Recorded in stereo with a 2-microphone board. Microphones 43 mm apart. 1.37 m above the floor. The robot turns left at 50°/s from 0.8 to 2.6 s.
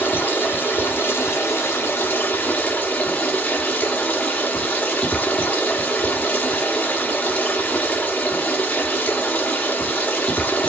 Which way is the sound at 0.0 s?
130° left.